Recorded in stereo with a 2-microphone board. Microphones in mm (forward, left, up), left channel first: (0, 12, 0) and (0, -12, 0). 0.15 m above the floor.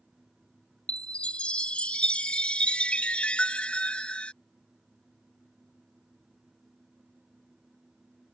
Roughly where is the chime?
Left.